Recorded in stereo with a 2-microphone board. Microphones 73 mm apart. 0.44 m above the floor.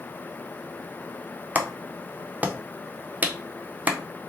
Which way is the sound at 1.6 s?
20° right (ahead or behind).